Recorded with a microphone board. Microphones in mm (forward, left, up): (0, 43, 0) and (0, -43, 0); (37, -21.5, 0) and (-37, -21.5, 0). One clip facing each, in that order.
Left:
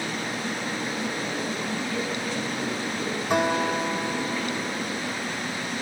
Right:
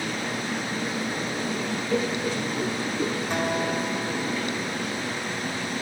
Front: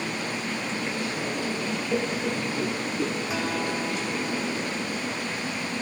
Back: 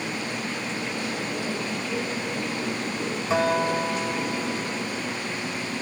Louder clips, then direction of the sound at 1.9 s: Right 3 dB, front 5 dB; 30° right.